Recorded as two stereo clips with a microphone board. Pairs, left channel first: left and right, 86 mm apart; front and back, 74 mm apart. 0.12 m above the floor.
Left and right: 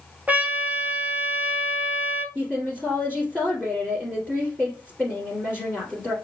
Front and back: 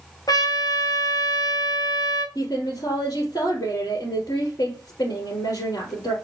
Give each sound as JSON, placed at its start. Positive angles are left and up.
{"t": 0.3, "sound": "a trumpet", "azimuth_deg": -20, "distance_m": 0.6}
{"t": 2.4, "sound": "a woman speaking", "azimuth_deg": -15, "distance_m": 2.5}